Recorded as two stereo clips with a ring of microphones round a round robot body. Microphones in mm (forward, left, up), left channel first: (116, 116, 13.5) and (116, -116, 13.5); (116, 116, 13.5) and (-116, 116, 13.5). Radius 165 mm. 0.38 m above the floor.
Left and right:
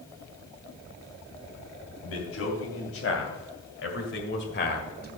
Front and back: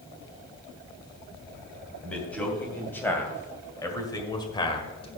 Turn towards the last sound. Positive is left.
turn(degrees=60)